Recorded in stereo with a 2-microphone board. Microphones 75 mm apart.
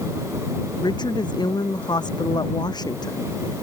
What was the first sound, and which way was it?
A woman speaking, 75° left (ahead or behind).